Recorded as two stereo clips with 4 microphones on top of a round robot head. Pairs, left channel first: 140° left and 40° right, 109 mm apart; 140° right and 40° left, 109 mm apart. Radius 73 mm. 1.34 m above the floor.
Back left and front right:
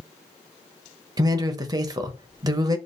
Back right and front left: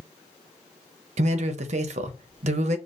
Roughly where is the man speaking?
Ahead.